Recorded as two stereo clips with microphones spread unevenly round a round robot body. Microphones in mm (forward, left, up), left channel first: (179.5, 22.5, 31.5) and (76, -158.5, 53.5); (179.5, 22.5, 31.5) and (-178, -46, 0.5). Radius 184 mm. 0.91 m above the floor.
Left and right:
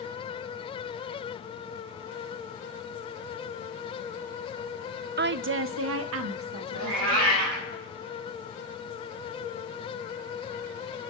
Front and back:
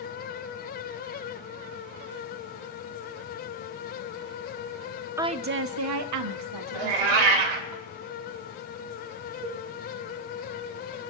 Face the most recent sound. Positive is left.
turn(degrees=130)